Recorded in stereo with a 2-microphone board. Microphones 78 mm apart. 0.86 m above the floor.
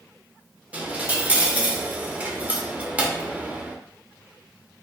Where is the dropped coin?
20° right (ahead or behind), 0.5 m.